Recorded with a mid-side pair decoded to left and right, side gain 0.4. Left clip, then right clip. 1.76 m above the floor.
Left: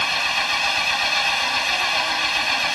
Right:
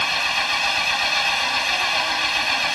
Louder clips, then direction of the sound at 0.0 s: Even; 5° left.